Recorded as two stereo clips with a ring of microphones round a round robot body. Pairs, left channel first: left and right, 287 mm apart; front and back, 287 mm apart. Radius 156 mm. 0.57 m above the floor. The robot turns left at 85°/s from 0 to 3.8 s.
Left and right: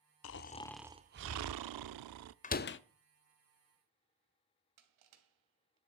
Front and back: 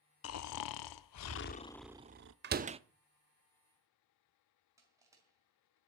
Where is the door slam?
145° left, 0.7 m; by 2.8 s 115° left, 0.7 m.